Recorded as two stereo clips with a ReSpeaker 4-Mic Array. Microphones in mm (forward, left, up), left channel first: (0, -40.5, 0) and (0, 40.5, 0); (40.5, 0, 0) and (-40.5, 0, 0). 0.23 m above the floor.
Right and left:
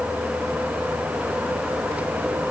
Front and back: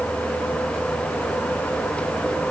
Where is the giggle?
I don't hear a giggle.